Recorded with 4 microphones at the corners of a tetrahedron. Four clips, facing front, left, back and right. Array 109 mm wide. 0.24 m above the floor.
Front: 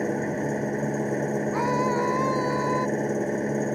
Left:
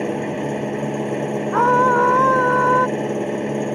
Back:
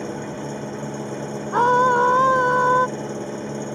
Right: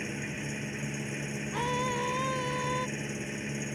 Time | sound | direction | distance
0.0 | an engine running | 75° left | ?
1.5 | a scream | 125° left | ?